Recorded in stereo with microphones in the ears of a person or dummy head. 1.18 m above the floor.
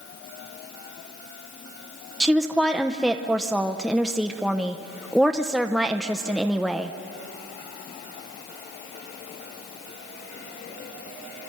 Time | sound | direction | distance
2.2 | a woman speaking | centre (ahead or behind) | 0.6 m